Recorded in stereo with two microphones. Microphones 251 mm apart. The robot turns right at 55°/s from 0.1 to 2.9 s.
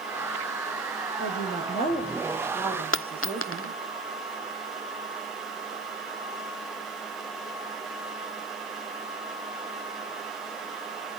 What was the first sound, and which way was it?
A woman speaking, 110° left.